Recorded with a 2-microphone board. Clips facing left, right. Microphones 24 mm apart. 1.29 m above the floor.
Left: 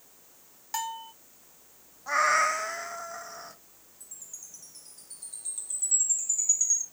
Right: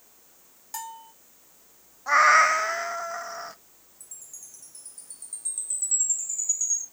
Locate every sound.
0.7 s a bell: 20° left (ahead or behind), 0.7 m
2.1 s a cat meowing: 30° right (ahead or behind), 0.6 m
4.0 s a chime: 30° left (ahead or behind), 2.5 m